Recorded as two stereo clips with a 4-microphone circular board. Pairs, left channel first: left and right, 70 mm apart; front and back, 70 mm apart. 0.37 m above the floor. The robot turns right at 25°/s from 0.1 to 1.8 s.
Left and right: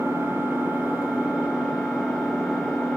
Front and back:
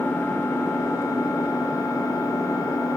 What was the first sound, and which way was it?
An engine running, 55° right.